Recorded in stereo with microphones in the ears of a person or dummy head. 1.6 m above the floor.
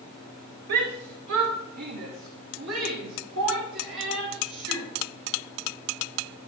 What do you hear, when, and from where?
0.7 s a shout: 60° right (ahead or behind), 1.5 m; by 4.9 s 75° right (ahead or behind), 4 m